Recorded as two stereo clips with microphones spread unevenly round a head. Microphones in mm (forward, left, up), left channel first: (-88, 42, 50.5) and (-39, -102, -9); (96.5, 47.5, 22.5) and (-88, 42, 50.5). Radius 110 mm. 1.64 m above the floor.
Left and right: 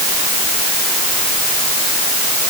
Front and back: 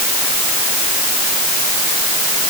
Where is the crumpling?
No crumpling in this recording.